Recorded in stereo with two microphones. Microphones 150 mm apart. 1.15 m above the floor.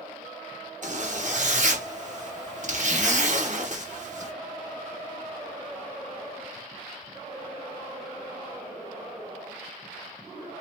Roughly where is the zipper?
Right.